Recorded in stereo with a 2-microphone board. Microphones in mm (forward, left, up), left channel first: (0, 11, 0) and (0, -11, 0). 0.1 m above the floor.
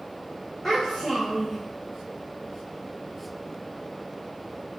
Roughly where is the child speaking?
Centre.